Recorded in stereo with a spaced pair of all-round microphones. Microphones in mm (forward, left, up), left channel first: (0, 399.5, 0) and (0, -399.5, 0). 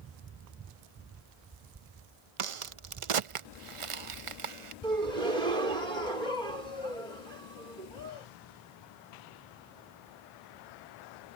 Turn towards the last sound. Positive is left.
turn(degrees=-85)